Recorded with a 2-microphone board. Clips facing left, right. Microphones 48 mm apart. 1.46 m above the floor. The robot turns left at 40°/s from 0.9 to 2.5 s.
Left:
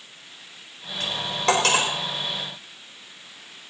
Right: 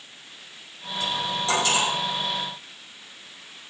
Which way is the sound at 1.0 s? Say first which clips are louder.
Left 2 dB; 60° left (ahead or behind).